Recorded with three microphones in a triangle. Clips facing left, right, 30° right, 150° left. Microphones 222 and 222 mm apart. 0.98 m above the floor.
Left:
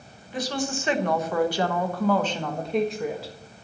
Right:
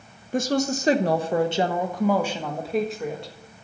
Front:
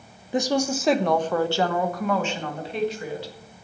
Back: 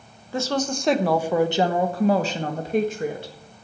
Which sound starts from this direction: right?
A woman speaking, at 0.3 s.